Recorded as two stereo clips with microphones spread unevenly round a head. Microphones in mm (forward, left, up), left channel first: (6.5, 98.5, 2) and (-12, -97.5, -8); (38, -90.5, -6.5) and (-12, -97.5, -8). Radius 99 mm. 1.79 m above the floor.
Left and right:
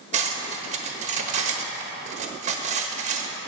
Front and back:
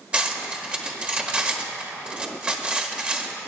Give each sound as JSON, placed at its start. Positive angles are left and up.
{"t": 0.1, "sound": "cutlery clinking", "azimuth_deg": -125, "distance_m": 1.2}